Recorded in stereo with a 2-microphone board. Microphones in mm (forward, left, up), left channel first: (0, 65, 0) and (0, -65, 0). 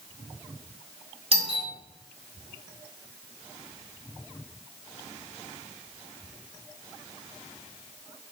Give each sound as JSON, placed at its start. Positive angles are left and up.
{"t": 1.3, "sound": "a doorbell", "side_deg": -50, "distance_m": 2.5}